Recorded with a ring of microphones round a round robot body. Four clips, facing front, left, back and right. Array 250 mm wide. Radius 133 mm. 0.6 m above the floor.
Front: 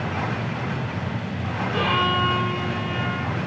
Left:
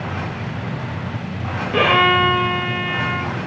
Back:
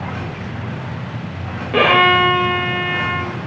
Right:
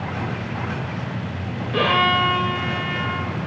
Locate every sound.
1.7 s a violin: 165° left, 0.5 m